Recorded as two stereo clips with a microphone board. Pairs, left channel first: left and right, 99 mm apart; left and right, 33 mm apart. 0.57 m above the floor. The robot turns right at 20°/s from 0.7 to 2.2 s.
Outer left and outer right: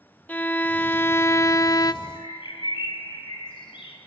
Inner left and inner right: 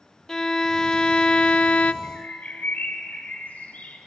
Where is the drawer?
No drawer in this recording.